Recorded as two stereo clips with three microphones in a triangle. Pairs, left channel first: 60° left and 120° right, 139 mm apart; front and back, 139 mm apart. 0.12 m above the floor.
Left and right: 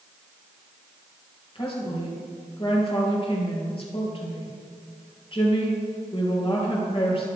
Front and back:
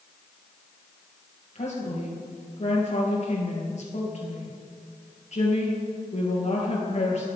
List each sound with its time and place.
1.6 s a woman speaking: 20° left, 3 m